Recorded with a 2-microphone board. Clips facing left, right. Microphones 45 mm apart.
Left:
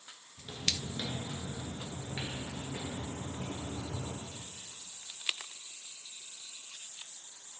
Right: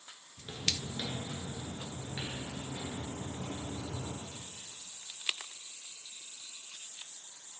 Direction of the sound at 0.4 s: 20° right (ahead or behind).